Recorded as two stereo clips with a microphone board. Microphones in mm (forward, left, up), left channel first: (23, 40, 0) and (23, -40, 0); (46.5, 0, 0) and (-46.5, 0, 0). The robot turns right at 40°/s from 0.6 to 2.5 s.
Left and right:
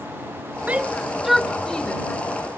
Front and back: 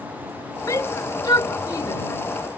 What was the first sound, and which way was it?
A shout, 30° right.